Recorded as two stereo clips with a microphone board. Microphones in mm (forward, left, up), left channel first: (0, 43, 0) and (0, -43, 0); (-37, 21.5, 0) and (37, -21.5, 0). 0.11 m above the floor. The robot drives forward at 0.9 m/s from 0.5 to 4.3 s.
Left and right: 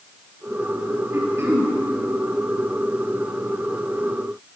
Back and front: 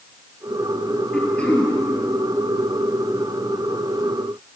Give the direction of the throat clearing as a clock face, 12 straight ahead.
4 o'clock.